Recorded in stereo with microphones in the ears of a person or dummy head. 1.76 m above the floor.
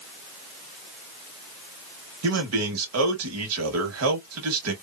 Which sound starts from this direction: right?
A man speaking, at 2.2 s.